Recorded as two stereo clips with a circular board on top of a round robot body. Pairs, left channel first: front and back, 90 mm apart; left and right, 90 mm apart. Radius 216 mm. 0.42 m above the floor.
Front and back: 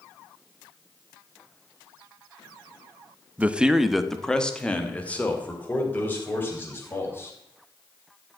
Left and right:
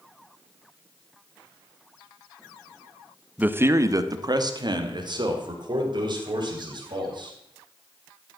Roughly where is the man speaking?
Behind right.